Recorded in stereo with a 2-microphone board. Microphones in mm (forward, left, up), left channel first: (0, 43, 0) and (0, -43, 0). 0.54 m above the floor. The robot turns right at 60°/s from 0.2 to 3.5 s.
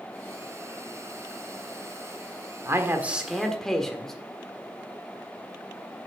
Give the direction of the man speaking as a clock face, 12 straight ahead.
1 o'clock.